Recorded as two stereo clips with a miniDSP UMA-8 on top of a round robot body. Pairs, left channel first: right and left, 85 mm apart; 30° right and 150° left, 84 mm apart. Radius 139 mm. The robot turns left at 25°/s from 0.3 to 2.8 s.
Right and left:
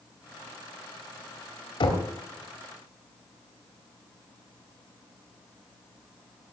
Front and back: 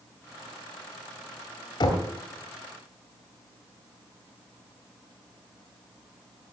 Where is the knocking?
70° right, 2.0 m; by 2.1 s 75° right, 2.0 m.